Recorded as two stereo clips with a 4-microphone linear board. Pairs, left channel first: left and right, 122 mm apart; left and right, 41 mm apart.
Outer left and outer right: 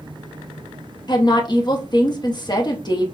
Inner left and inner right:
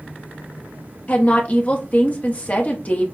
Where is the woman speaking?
35° left (ahead or behind), 0.8 m.